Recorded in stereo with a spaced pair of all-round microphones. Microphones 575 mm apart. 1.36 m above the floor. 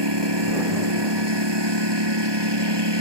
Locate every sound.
0.0 s a lawn mower: 45° right (ahead or behind)